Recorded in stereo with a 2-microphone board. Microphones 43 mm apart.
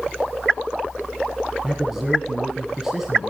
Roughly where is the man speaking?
Centre.